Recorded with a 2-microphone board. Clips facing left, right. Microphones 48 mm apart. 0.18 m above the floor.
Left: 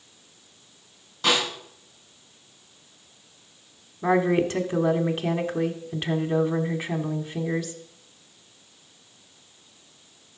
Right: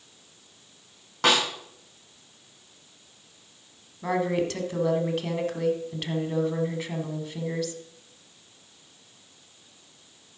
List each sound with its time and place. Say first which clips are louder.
1.2 s a snare drum: right 1 dB; 65° right (ahead or behind), 7 m
4.0 s a woman speaking: left 5 dB; 25° left (ahead or behind), 1.1 m